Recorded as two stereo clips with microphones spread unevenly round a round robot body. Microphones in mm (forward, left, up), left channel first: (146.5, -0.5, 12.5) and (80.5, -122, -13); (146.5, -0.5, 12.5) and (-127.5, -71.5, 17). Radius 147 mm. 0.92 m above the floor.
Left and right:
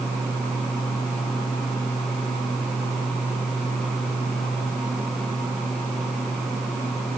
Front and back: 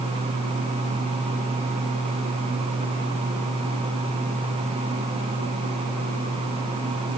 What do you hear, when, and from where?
Only background noise.